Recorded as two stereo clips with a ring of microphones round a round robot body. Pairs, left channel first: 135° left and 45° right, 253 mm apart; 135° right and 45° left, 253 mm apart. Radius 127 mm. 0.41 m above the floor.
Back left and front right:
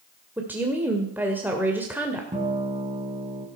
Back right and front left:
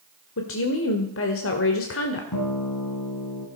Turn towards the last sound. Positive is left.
turn(degrees=-115)